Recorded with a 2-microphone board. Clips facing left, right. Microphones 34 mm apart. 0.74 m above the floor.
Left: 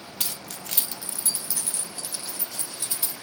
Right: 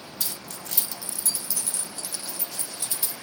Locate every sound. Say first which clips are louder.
0.2 s keys jangling: left 2 dB; 75° left (ahead or behind), 0.5 m; by 3.1 s 10° left (ahead or behind), 1.9 m